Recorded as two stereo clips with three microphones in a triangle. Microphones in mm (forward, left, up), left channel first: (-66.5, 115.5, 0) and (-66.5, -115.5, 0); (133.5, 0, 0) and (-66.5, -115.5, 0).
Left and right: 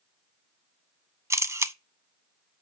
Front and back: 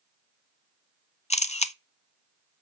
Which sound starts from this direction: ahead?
A camera shutter, at 1.3 s.